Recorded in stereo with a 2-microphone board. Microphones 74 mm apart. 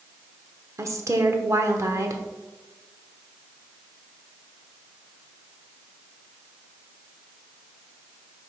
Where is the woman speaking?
45° right (ahead or behind), 1.0 m.